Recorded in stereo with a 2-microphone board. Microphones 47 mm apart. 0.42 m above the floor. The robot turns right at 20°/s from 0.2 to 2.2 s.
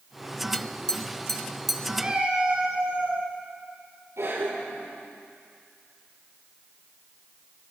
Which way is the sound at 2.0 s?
20° right (ahead or behind).